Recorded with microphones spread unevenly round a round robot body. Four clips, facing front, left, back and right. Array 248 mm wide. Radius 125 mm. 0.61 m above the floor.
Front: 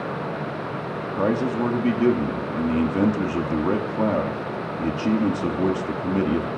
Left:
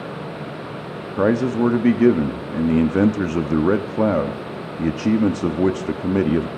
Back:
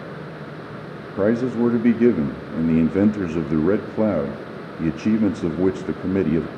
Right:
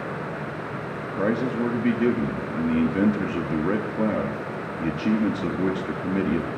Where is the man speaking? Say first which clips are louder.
Left 6 dB, back 4 dB; 110° left, 0.7 m.